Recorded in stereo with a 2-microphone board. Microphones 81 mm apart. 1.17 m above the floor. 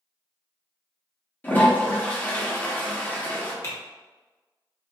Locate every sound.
1.4 s a toilet flushing: 25° left (ahead or behind), 0.8 m
3.6 s typing on a keyboard: 35° left (ahead or behind), 1.0 m